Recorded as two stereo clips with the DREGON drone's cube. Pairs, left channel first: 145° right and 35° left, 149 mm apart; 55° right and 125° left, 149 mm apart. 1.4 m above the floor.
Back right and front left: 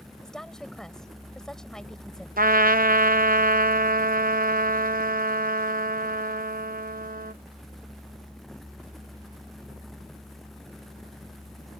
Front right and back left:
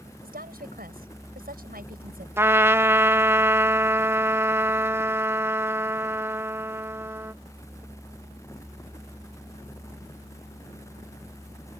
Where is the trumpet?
50° left.